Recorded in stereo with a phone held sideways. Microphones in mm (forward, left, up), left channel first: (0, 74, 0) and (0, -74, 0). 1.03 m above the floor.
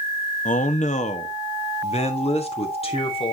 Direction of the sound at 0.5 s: 60° left (ahead or behind).